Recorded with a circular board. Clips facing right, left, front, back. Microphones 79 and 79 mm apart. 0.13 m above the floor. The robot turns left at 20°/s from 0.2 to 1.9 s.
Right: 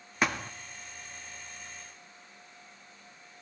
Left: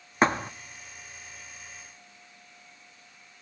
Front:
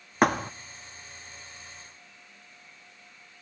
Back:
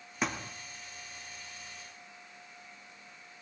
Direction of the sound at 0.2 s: 35° left.